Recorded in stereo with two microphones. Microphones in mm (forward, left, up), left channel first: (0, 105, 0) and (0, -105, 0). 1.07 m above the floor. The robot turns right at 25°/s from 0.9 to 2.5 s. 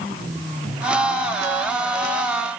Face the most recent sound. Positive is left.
No sound to turn to.